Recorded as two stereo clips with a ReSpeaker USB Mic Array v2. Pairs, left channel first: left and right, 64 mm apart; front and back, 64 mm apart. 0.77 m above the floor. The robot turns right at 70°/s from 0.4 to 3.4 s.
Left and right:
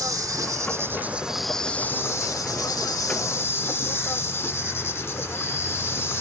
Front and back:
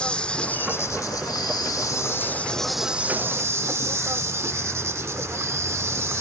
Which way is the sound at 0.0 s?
75° right.